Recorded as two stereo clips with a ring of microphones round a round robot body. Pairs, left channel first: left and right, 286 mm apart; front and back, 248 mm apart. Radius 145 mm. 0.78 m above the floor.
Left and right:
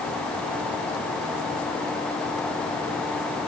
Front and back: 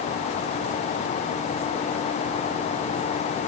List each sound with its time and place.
Only background noise.